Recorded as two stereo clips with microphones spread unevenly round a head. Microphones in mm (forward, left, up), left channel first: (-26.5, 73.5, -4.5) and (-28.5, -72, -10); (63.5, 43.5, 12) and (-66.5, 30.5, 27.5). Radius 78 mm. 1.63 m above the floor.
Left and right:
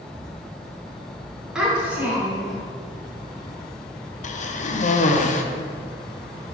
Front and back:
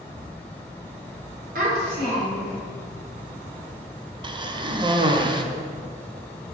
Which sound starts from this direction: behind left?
A cough, at 4.2 s.